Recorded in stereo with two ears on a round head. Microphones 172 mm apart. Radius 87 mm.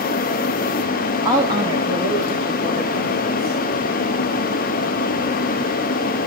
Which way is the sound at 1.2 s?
15° right (ahead or behind).